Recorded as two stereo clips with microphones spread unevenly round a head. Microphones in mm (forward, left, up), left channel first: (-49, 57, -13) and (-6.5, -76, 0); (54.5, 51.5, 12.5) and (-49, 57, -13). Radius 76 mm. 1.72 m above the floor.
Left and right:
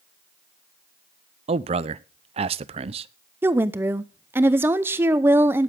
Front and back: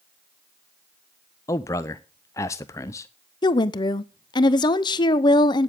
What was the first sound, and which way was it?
A man speaking, 45° right.